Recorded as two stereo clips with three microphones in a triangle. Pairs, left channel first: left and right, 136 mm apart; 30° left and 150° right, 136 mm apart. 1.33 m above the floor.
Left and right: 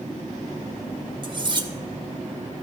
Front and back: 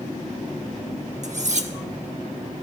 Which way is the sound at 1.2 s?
140° right.